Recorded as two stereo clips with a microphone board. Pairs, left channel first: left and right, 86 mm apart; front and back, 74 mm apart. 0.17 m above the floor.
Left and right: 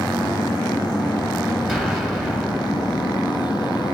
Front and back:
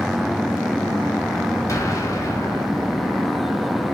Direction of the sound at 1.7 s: 5° right.